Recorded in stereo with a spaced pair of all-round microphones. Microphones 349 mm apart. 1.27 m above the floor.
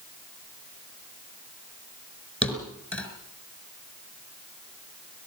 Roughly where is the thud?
Centre.